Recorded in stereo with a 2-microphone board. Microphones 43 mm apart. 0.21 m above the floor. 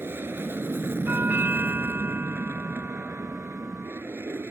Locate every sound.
0.0 s an aircraft: 60° right (ahead or behind)
1.1 s a doorbell: 50° right (ahead or behind)